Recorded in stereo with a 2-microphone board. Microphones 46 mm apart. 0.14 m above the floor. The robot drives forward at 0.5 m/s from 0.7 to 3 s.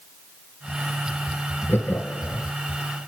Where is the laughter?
50° left (ahead or behind), 2.5 m; by 2.5 s 55° left (ahead or behind), 2.5 m.